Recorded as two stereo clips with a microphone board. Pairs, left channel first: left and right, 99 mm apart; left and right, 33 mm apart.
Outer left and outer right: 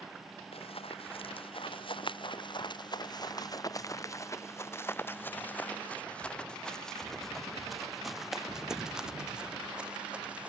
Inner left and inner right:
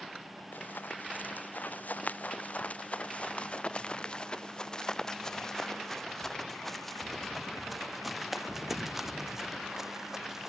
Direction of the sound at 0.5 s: 70° left (ahead or behind).